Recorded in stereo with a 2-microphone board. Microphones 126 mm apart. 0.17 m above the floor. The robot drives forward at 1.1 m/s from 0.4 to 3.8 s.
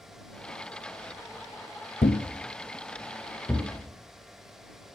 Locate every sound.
2.0 s a thud: 80° left, 0.7 m; by 3.7 s 20° left (ahead or behind), 2 m